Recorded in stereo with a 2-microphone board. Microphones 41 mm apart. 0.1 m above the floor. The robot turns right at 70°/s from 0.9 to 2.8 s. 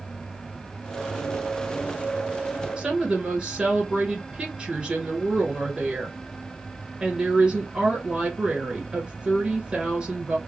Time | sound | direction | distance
2.8 | a woman speaking | 25° right (ahead or behind) | 1.4 m